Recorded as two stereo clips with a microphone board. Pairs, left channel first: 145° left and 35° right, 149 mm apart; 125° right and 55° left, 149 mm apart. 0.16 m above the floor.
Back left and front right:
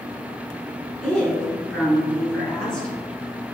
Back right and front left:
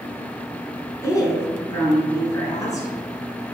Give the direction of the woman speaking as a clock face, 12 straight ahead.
5 o'clock.